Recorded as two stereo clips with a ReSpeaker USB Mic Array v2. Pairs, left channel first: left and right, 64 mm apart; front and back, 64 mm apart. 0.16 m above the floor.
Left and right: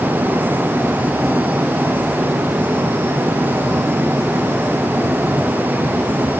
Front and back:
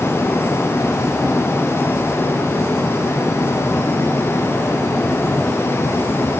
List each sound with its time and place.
Only background noise.